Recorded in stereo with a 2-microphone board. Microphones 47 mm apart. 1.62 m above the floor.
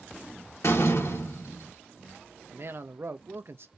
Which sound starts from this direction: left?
A door slam, at 0.6 s.